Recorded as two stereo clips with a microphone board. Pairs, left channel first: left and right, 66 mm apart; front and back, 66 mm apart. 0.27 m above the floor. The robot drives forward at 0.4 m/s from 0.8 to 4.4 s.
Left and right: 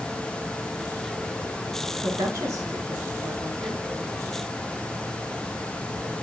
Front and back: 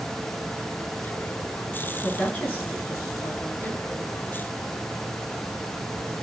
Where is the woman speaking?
55° right, 3 m; by 3.8 s 70° right, 2.5 m.